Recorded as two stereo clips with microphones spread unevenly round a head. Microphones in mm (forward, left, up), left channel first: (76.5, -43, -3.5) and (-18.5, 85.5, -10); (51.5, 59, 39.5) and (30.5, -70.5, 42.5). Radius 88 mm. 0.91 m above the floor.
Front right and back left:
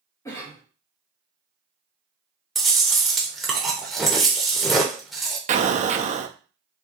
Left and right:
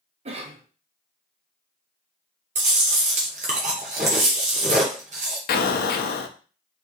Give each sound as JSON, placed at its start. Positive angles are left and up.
{"t": 0.2, "sound": "a cough", "azimuth_deg": -130, "distance_m": 1.0}
{"t": 2.5, "sound": "chewing", "azimuth_deg": -140, "distance_m": 0.7}
{"t": 5.5, "sound": "an explosion", "azimuth_deg": 75, "distance_m": 0.6}